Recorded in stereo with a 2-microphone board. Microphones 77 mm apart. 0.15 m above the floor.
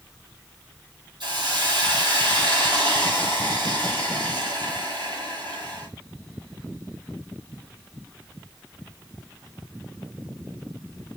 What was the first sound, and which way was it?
A hiss, 75° right (ahead or behind).